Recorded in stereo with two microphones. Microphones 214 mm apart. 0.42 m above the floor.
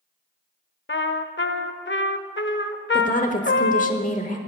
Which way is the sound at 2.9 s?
35° left (ahead or behind).